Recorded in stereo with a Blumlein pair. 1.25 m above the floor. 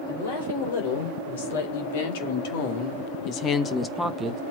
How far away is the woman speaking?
About 4.5 m.